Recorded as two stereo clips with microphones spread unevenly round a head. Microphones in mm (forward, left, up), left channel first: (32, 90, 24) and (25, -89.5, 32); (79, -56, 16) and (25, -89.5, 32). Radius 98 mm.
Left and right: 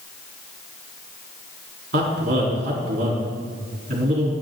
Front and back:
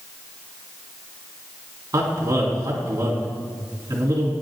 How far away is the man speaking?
About 3.5 m.